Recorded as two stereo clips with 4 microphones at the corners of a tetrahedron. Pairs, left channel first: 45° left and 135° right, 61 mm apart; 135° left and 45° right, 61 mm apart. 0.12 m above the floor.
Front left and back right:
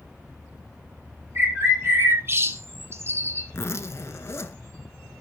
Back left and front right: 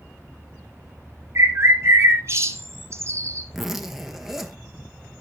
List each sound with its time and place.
1.4 s a bird: 85° right, 1.1 m
3.5 s a zipper: 40° left, 0.8 m